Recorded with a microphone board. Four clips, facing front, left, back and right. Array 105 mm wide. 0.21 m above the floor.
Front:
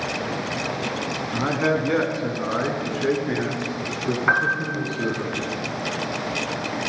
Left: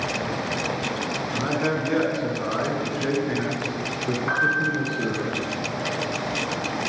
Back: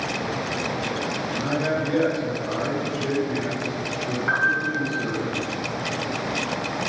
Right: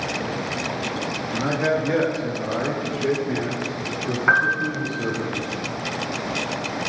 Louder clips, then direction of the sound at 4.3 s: Right 4 dB, even; 40° right.